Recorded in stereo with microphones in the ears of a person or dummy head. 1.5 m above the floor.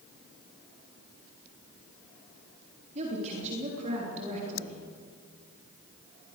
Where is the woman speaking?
40° right (ahead or behind), 3 m.